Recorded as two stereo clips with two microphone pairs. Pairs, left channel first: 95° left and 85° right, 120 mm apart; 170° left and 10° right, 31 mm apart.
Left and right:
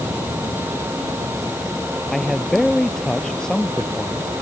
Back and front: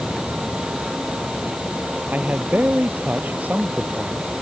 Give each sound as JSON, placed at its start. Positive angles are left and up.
{"t": 2.1, "sound": "a man speaking", "azimuth_deg": 10}